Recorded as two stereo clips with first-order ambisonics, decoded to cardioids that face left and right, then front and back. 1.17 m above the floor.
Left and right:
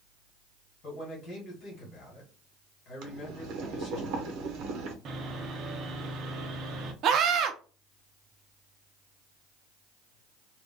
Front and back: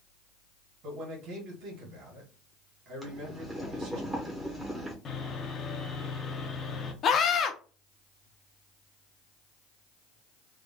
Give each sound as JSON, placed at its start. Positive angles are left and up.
{"t": 0.8, "sound": "a man speaking", "azimuth_deg": 145, "distance_m": 2.0}
{"t": 3.0, "sound": "boiling", "azimuth_deg": -100, "distance_m": 0.9}
{"t": 5.0, "sound": "sawing", "azimuth_deg": -55, "distance_m": 0.8}
{"t": 7.0, "sound": "a scream", "azimuth_deg": -50, "distance_m": 0.7}